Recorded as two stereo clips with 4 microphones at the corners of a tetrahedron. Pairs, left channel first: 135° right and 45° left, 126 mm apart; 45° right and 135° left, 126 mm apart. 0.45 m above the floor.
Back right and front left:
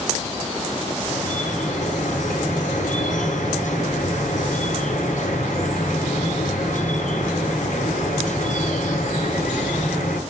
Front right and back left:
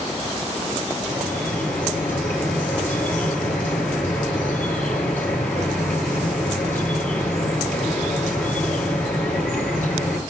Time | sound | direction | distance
1.0 | dripping | 120° right | 8.5 m